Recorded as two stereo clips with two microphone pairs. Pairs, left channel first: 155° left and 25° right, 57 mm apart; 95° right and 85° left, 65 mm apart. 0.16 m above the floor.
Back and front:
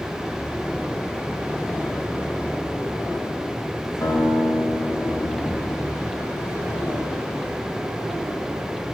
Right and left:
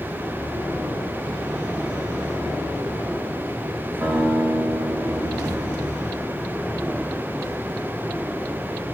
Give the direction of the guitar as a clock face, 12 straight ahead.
6 o'clock.